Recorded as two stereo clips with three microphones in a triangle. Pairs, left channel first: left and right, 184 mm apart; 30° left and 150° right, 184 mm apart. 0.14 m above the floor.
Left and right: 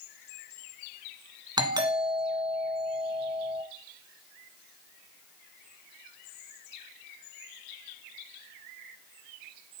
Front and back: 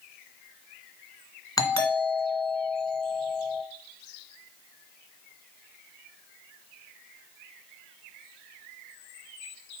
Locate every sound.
1.6 s a doorbell: 35° right, 2 m